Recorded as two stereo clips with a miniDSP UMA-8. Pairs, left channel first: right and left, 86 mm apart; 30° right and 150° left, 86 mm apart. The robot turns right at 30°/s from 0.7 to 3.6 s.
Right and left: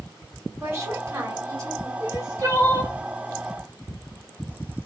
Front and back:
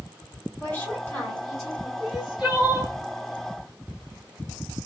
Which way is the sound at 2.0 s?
60° left.